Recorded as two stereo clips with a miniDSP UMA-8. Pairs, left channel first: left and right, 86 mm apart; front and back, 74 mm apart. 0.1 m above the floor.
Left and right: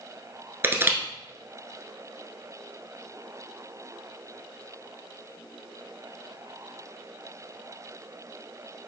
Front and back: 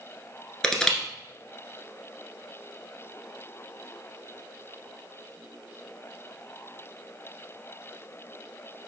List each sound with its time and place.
0.6 s crushing: 70° right, 1.2 m